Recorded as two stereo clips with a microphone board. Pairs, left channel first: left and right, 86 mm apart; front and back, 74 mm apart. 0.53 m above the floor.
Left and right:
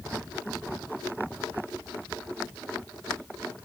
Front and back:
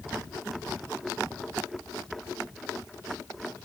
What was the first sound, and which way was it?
Only background noise.